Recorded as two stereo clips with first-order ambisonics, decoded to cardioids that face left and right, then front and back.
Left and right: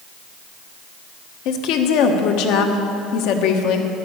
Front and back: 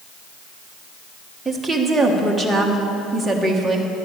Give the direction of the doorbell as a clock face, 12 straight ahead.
I don't hear a doorbell.